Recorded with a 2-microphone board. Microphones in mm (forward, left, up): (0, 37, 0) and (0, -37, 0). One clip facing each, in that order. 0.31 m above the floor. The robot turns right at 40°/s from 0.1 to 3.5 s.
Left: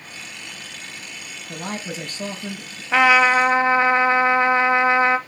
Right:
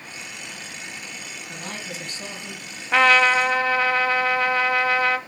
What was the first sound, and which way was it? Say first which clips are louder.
A man speaking: left 6 dB; 35° left.